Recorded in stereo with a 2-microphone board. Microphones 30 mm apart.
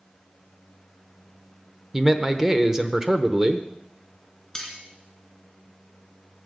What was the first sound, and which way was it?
A man speaking, 15° right (ahead or behind).